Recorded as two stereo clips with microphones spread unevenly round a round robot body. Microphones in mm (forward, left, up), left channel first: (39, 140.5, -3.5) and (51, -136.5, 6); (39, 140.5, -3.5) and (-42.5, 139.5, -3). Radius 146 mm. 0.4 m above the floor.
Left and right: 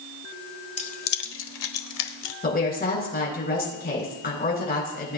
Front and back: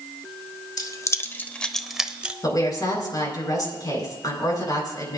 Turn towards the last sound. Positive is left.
turn(degrees=40)